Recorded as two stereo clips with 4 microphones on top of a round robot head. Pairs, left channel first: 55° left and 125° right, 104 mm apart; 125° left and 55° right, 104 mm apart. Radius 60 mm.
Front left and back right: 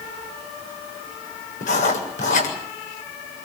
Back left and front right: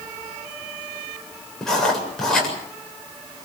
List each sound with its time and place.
1.6 s writing: 45° left, 7.5 m